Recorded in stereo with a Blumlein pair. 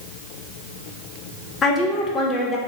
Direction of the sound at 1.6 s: 20° left.